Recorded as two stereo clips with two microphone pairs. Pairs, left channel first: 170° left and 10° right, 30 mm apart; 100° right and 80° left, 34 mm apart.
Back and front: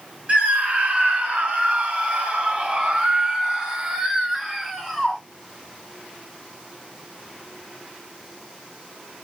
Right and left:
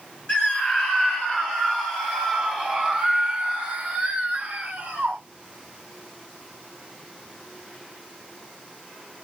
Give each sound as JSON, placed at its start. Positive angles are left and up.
{"t": 0.3, "sound": "a scream", "azimuth_deg": -50, "distance_m": 1.8}